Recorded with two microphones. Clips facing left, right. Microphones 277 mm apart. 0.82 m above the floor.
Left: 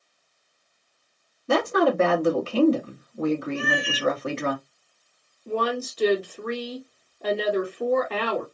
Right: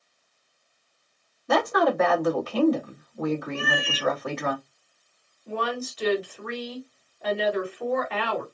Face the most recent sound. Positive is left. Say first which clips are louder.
# left 4 dB
turn(degrees=45)  # may be behind; listen again after turning